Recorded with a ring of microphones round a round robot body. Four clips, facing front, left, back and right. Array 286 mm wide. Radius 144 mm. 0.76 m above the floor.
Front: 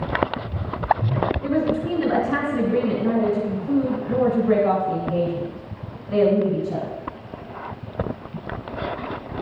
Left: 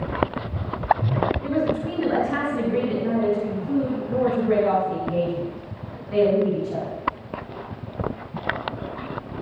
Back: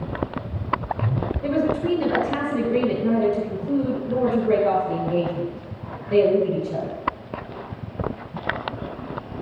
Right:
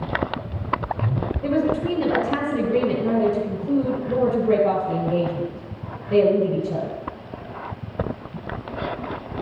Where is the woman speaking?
130° right, 3 m.